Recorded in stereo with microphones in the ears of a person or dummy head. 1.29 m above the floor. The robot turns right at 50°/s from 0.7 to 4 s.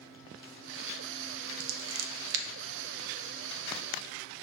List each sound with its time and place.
1.6 s scissors: 75° right (ahead or behind), 0.6 m; by 2.5 s 60° right (ahead or behind), 0.6 m